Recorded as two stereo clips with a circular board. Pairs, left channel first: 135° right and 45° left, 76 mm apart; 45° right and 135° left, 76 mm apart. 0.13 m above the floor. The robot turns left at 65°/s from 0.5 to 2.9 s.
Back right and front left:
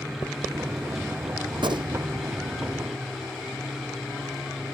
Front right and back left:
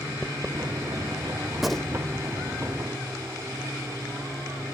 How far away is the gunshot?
About 1.2 m.